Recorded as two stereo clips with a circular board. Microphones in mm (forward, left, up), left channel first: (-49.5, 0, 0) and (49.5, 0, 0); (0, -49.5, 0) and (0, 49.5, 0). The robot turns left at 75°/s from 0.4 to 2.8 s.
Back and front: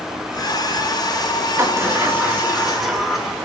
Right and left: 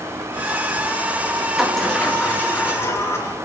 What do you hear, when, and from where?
1.6 s a sliding door: 10° left, 1.1 m; by 3.4 s 85° right, 1.1 m